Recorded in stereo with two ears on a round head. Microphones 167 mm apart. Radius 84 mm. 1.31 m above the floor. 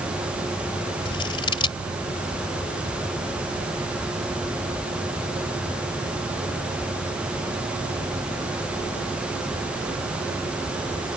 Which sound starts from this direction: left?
Scissors, at 1.1 s.